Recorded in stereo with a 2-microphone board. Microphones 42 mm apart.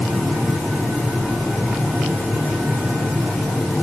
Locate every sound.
Only background noise.